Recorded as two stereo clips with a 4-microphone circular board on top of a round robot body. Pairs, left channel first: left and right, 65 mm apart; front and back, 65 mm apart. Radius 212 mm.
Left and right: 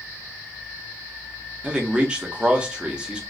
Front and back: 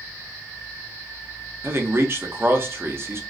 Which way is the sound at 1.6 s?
155° right.